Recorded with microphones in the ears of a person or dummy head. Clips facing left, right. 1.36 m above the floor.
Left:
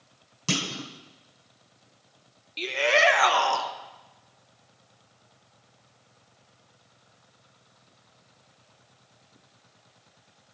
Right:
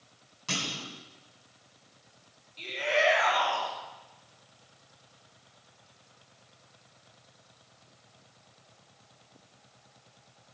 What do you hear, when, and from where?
0.5 s a clunk: 50° left (ahead or behind), 1.4 m
2.6 s a shout: 85° left, 1.2 m